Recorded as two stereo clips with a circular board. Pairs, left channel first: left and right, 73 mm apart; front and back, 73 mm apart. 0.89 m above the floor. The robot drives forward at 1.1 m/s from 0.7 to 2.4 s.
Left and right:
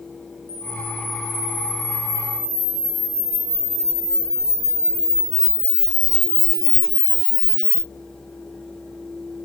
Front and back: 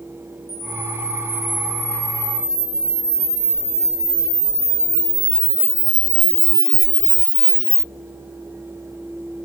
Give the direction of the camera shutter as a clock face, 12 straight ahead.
10 o'clock.